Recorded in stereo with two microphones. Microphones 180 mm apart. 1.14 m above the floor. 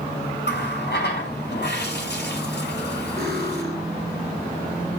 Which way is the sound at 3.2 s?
60° right (ahead or behind).